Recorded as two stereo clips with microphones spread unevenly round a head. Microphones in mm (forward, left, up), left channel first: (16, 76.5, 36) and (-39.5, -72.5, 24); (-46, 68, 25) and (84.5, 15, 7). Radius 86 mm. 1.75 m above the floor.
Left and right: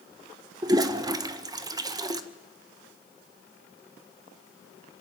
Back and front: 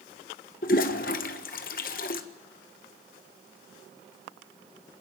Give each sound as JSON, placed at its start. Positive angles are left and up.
{"t": 0.6, "sound": "a toilet flushing", "azimuth_deg": 180, "distance_m": 1.4}